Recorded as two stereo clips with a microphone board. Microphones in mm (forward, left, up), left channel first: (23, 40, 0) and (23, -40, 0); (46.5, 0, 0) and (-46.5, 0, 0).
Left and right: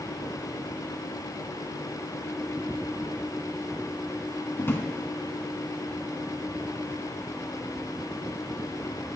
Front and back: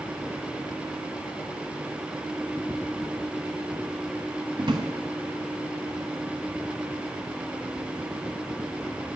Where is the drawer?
150° left, 0.9 m.